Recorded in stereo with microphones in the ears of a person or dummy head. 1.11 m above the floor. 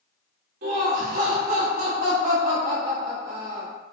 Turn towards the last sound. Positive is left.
turn(degrees=-55)  # may be behind; listen again after turning